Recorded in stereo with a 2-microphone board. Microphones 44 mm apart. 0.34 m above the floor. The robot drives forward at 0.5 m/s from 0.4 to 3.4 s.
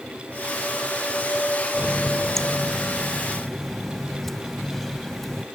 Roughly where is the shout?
I don't hear a shout.